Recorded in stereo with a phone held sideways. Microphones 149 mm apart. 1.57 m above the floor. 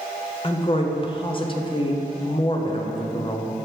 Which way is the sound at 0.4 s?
35° left (ahead or behind).